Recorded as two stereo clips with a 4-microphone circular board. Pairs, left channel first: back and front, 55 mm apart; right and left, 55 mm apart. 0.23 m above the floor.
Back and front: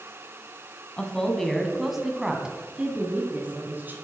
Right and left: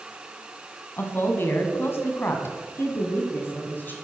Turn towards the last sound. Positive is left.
turn(degrees=-45)